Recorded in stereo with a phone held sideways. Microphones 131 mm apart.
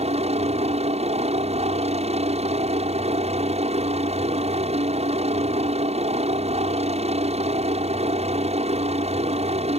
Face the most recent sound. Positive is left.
turn(degrees=-55)  # may be behind; listen again after turning